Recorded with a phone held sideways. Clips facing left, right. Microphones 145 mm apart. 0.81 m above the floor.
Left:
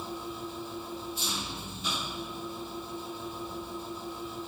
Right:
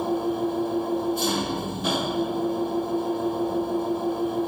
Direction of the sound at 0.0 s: 65° right (ahead or behind).